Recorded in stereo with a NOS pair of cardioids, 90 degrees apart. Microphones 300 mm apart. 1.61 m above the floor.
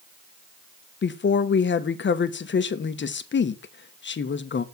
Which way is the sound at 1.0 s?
40° left.